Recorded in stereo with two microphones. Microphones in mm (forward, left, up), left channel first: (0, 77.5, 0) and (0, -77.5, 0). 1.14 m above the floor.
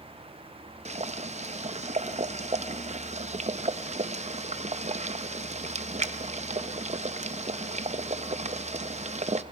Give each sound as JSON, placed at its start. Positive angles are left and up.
{"t": 0.8, "sound": "boiling", "side_deg": -45, "distance_m": 0.5}